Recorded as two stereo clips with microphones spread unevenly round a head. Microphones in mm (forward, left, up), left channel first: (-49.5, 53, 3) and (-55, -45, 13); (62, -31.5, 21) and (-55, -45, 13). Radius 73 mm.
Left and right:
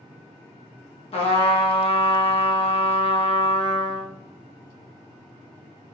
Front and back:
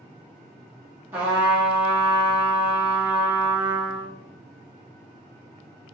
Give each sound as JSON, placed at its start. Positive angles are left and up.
{"t": 1.1, "sound": "a trumpet", "azimuth_deg": 110, "distance_m": 0.7}